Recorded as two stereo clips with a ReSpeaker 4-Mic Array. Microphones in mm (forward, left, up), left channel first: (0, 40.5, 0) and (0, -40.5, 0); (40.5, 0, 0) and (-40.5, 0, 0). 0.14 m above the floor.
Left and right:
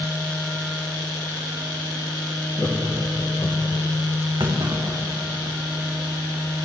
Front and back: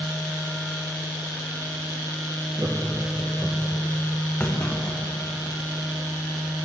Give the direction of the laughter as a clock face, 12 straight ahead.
8 o'clock.